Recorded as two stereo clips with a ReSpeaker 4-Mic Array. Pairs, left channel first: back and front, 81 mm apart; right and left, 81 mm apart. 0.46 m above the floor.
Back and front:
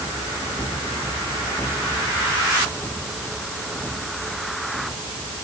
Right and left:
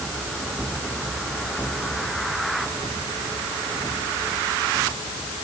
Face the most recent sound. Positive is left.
No sound to turn to.